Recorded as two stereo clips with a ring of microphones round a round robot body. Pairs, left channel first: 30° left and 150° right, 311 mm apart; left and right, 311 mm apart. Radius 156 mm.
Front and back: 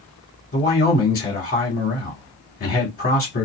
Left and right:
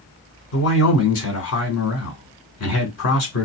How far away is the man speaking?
About 1.9 m.